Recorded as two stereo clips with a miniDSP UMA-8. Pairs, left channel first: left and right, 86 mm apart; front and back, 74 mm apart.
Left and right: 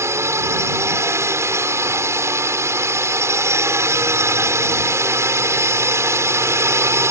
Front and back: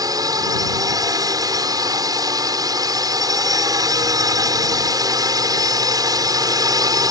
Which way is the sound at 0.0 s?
145° right.